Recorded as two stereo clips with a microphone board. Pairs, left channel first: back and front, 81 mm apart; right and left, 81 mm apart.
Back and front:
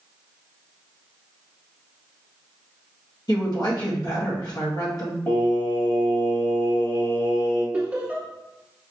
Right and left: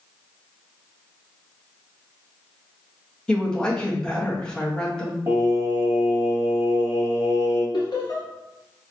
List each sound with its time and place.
3.3 s a woman speaking: 170° right, 1.1 m
5.3 s singing: 125° left, 1.3 m
7.7 s laughter: 65° right, 1.3 m